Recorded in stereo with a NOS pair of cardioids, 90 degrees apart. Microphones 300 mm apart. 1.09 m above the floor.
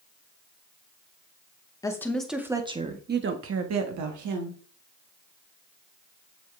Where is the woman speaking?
10° left, 1.7 m; by 4.6 s 75° right, 1.9 m.